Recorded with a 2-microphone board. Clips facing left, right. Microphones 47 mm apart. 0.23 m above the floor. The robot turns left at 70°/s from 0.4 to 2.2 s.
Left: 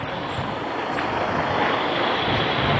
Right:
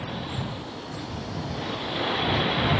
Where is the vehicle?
145° left; by 2.8 s 20° left.